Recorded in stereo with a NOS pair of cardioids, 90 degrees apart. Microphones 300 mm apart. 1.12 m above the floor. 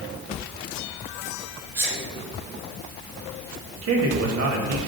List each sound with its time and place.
1.8 s a sneeze: 50° right, 3.5 m
3.8 s a man speaking: 55° right, 1.8 m